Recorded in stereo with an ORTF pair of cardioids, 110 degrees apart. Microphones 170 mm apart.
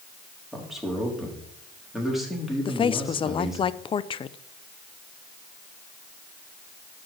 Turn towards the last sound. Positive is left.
turn(degrees=30)